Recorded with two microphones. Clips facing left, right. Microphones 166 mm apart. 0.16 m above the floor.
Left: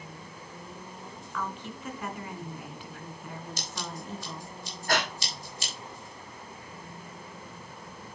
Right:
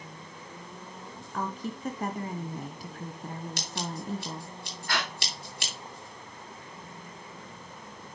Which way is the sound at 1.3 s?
40° right (ahead or behind).